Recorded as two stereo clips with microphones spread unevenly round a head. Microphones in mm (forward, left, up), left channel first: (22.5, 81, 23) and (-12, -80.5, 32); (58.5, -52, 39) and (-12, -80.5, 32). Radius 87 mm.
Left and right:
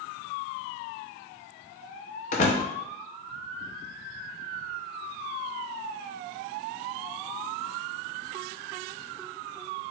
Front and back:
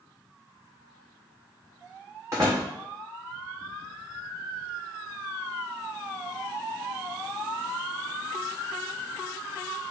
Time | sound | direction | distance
2.3 | a door slam | 125° left | 0.7 m